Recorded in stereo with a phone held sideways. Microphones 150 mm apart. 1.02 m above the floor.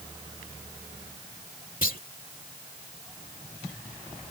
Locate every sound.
1.8 s a clunk: 70° left (ahead or behind)